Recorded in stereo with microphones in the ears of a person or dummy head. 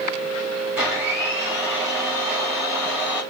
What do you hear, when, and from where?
0.8 s a blender: 5° right (ahead or behind), 1.7 m